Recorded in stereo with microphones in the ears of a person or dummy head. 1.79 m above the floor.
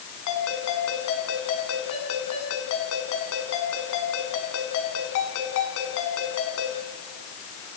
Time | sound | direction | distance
0.3 | a ringtone | 70° left (ahead or behind) | 7 m